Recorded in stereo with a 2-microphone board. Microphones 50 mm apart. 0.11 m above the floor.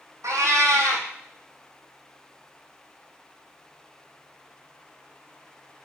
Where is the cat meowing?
80° right, 0.7 m.